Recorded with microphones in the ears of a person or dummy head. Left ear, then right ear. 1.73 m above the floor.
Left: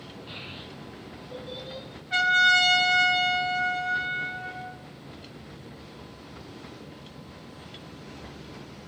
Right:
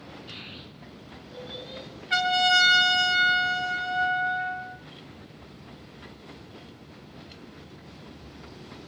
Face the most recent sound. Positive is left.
turn(degrees=-30)  # may be behind; listen again after turning